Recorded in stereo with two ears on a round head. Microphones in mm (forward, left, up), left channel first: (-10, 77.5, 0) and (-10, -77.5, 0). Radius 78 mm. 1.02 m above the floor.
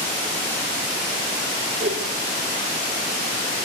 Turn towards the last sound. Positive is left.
turn(degrees=-45)  # may be behind; listen again after turning